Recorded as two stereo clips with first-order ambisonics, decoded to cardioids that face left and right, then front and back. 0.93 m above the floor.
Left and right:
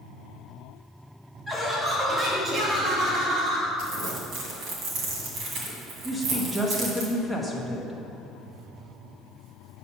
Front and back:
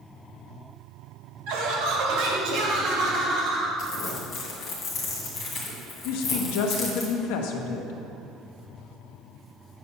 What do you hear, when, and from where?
1.5 s laughter: 175° left, 1.7 m; by 3.7 s 130° right, 2 m
3.8 s crumpling: 55° right, 1.9 m
6.0 s a woman speaking: straight ahead, 0.9 m